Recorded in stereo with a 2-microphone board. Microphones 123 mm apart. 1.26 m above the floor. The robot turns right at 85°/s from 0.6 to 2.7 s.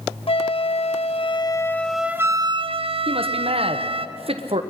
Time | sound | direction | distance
0.3 | a flute | 65° left | 0.6 m
3.1 | a man speaking | 55° right (ahead or behind) | 1.0 m